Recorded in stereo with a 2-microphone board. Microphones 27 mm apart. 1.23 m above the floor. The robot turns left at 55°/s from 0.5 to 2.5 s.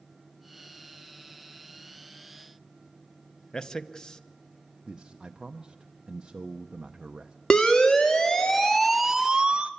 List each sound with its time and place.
3.5 s a man speaking: 30° left (ahead or behind), 0.8 m
4.8 s a man speaking: 30° right (ahead or behind), 0.7 m
7.5 s a siren: 40° left (ahead or behind), 2 m; by 9.7 s 50° right (ahead or behind), 0.9 m